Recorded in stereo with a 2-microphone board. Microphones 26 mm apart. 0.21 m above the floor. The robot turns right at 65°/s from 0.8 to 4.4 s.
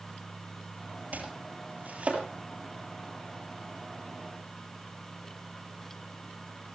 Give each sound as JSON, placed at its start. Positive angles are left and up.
{"t": 1.1, "sound": "chopping", "side_deg": -60, "distance_m": 5.5}